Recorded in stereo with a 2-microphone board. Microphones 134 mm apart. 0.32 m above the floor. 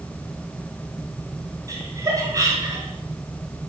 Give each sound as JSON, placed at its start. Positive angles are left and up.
{"t": 1.7, "sound": "laughter", "side_deg": -25, "distance_m": 2.5}